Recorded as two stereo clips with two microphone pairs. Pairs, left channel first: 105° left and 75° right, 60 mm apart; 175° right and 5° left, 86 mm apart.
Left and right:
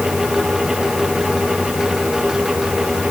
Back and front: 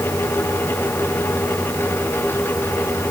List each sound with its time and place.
Only background noise.